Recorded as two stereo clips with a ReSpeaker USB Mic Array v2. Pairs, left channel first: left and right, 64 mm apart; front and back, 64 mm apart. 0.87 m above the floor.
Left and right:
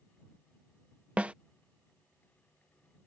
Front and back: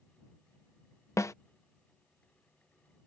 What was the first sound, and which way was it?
A snare drum, 25° right.